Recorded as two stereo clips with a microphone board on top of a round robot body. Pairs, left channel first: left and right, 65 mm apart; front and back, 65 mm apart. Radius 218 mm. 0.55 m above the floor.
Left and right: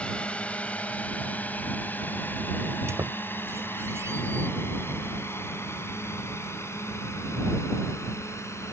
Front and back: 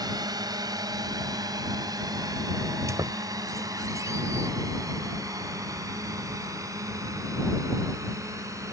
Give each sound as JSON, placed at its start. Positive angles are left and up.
{"t": 0.0, "sound": "a drone", "azimuth_deg": 165}
{"t": 2.9, "sound": "a squeak", "azimuth_deg": -140}